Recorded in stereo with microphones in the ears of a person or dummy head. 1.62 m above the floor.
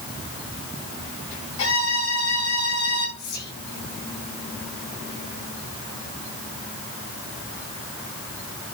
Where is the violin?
65° left (ahead or behind), 3 m.